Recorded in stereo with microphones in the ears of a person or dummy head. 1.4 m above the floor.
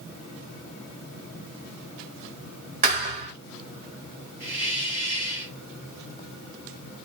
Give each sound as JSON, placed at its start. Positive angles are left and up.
{"t": 2.8, "sound": "a thud", "side_deg": -40, "distance_m": 2.0}
{"t": 4.4, "sound": "a hiss", "side_deg": -10, "distance_m": 2.0}